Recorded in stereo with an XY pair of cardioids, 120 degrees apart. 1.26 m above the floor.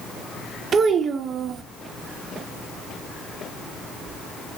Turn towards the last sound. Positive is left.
turn(degrees=-40)